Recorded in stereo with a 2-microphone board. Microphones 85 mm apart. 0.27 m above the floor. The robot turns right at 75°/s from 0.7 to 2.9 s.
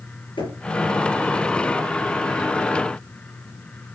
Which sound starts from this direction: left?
Knocking, at 0.4 s.